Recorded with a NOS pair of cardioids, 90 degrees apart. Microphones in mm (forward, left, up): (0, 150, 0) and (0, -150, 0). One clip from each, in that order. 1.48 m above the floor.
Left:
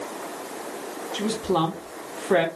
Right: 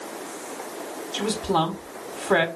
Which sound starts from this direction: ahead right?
A woman speaking, at 1.1 s.